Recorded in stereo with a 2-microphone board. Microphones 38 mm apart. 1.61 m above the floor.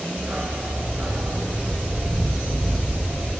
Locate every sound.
0.2 s a dog barking: 30° right (ahead or behind), 4 m; by 3.3 s 65° right (ahead or behind), 7 m